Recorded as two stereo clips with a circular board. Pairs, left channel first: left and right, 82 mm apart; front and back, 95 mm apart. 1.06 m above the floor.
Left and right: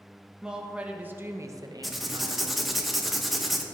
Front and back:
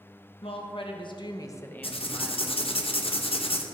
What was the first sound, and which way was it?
A woman speaking, 10° right.